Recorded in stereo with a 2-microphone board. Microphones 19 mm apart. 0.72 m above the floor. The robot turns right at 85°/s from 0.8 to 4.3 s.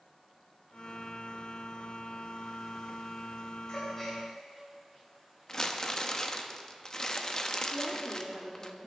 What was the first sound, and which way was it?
A gasp, 45° left (ahead or behind).